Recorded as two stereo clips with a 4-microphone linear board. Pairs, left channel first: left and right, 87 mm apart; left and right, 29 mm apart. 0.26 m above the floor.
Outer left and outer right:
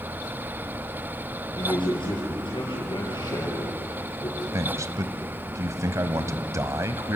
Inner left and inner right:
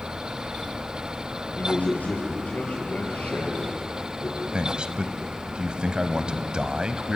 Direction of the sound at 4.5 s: 35° right (ahead or behind).